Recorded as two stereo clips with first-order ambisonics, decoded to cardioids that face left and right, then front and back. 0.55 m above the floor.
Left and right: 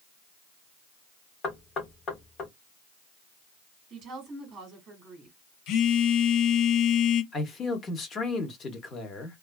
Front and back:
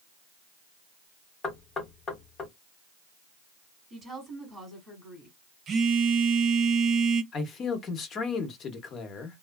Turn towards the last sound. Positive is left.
turn(degrees=40)